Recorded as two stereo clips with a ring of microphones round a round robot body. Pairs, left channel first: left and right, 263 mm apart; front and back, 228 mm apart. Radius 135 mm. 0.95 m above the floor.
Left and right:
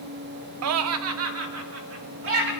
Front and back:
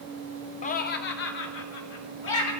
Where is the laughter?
65° right, 0.5 m; by 2.5 s 50° right, 3 m.